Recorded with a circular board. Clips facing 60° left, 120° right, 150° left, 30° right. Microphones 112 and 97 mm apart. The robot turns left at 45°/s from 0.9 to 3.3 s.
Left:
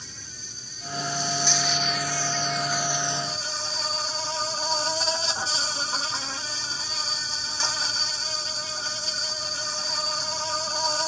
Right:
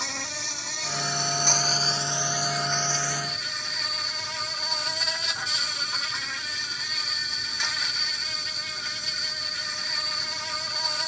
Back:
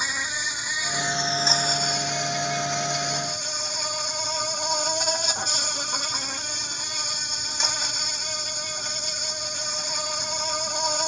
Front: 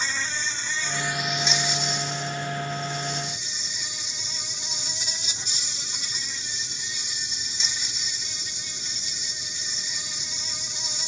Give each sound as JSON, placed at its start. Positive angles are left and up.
{"t": 0.0, "sound": "an insect", "azimuth_deg": -135}